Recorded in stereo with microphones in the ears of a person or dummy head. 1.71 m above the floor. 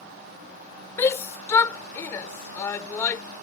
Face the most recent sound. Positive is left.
turn(degrees=15)  # may be behind; listen again after turning